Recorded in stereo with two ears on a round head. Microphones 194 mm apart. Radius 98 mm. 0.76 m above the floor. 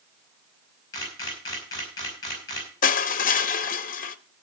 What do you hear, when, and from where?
0.9 s a camera shutter: 20° left (ahead or behind), 5 m
2.8 s crushing: 40° left (ahead or behind), 0.7 m